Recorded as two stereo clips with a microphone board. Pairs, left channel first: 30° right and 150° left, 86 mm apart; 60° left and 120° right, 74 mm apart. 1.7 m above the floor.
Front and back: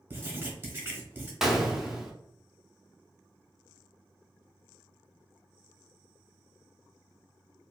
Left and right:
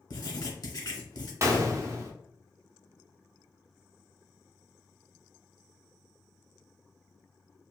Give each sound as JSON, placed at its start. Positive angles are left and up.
{"t": 0.1, "sound": "writing", "azimuth_deg": 85, "distance_m": 1.0}
{"t": 1.4, "sound": "a gunshot", "azimuth_deg": -130, "distance_m": 0.6}